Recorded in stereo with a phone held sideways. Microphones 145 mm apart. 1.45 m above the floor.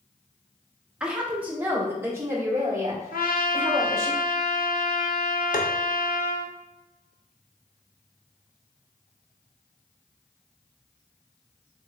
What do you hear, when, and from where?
1.0 s a woman speaking: 5° right (ahead or behind), 1.0 m; by 4.1 s 25° right (ahead or behind), 2.5 m
3.1 s a trumpet: 80° left, 0.6 m
5.5 s tapping: 65° left (ahead or behind), 0.7 m